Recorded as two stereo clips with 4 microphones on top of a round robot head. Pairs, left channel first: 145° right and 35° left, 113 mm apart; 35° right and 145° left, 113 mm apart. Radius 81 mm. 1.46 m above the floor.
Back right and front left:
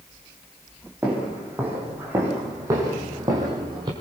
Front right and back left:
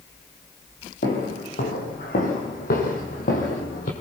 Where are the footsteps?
45° right, 5 m; by 3.9 s 20° right, 3.5 m.